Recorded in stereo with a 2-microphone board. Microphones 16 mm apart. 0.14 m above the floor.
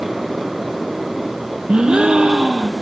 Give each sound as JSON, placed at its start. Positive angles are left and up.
{"t": 1.7, "sound": "a gasp", "side_deg": -65, "distance_m": 0.8}